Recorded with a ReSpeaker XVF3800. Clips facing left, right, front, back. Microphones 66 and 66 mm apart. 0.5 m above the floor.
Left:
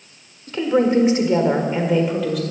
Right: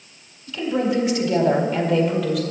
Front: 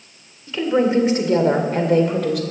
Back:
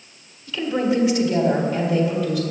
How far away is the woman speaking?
About 1.8 m.